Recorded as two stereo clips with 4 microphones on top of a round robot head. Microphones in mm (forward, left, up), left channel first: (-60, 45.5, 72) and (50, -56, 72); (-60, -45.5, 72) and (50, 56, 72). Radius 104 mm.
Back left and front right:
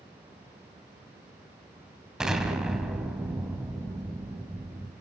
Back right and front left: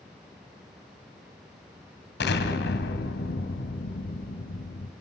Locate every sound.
2.2 s an explosion: 130° right, 2 m